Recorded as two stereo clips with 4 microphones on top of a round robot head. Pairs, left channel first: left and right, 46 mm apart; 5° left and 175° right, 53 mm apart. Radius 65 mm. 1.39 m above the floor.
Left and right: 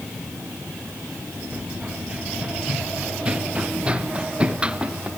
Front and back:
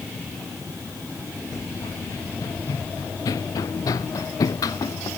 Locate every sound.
1.5 s running footsteps: 30° right; by 5.1 s 25° right